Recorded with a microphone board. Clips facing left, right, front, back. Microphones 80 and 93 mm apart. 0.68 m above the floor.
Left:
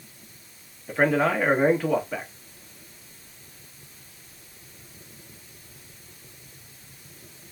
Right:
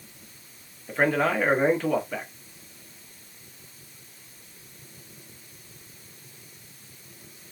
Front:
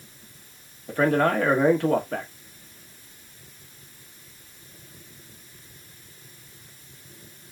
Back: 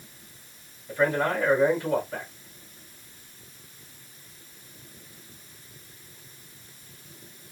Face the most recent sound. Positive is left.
turn(degrees=5)